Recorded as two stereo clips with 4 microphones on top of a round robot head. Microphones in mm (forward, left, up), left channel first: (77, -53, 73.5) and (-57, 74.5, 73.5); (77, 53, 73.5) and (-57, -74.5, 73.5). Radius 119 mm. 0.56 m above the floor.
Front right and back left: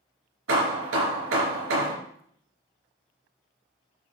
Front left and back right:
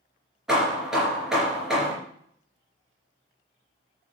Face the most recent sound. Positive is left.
turn(degrees=135)